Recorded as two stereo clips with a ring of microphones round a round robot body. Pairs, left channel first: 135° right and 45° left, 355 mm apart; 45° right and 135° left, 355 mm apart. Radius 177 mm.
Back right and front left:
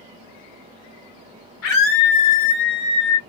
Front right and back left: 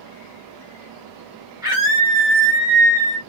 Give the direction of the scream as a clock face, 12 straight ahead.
5 o'clock.